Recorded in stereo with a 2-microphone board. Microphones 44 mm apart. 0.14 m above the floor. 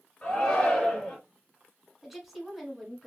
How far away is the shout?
About 1.5 m.